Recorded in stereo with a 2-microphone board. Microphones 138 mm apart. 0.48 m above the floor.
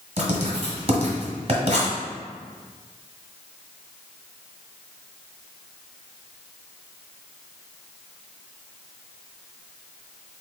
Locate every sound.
0.2 s writing: 50° right (ahead or behind), 1.2 m